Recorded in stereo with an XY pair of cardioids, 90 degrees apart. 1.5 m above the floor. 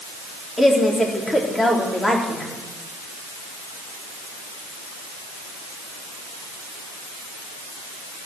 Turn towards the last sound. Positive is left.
turn(degrees=20)